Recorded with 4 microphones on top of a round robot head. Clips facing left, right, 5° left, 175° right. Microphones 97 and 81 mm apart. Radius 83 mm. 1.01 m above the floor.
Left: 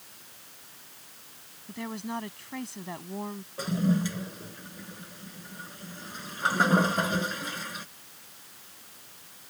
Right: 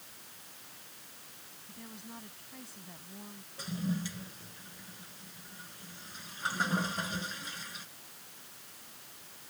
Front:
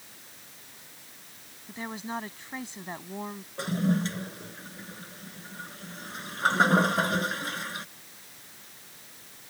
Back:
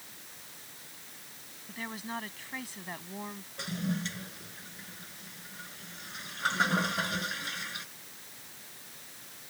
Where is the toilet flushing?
55° left.